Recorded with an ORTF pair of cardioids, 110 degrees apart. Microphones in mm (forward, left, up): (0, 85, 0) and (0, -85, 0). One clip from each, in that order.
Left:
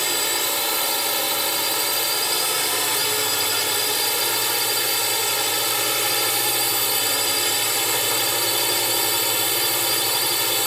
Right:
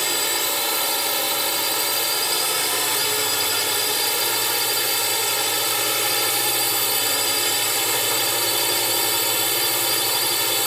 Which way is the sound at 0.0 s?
Straight ahead.